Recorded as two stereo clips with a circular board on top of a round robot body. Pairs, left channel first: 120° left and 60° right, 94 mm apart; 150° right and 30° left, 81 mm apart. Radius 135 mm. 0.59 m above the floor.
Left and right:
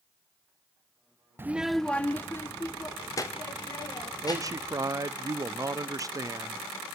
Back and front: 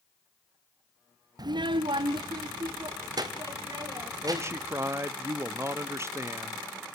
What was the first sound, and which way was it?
A child speaking, 5° left.